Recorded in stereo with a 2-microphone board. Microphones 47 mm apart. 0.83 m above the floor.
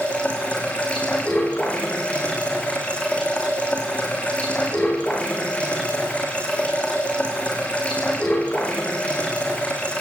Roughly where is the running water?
Left.